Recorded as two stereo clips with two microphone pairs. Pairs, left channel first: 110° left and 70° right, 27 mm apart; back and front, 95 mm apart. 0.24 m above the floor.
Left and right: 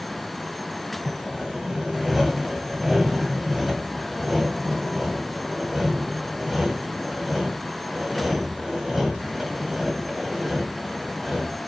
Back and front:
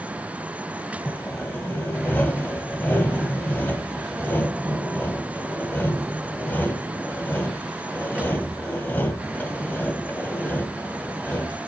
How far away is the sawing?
About 1.5 m.